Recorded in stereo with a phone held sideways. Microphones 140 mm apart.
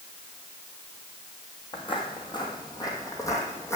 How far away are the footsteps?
About 1.4 m.